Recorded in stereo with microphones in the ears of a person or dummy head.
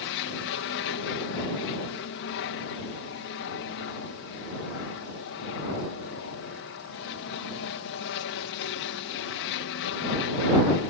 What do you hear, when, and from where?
0.0 s an aircraft: 60° left (ahead or behind)